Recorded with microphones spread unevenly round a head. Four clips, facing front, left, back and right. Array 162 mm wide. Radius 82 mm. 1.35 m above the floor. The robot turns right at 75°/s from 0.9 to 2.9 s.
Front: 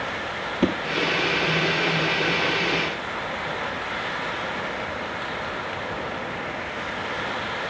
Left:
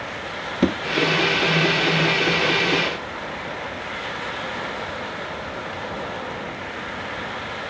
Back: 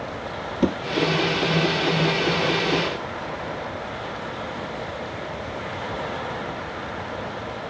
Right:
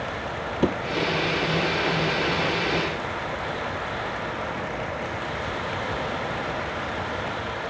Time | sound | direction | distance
0.6 | a thud | 70° left | 1.7 m